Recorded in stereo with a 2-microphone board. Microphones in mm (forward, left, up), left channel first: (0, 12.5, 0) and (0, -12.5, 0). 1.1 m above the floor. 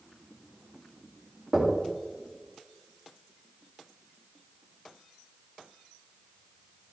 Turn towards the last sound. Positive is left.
turn(degrees=-25)  # may be behind; listen again after turning